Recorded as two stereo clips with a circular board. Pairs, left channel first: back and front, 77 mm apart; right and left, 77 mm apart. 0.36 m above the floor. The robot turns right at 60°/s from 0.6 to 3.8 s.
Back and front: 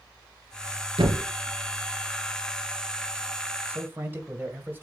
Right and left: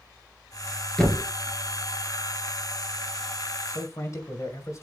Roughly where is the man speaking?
Ahead right.